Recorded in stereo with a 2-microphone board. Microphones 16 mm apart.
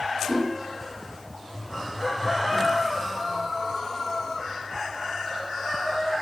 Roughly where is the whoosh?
Right.